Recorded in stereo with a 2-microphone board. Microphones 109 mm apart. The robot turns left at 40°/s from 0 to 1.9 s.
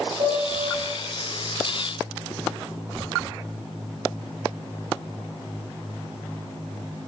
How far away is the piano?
About 1.4 m.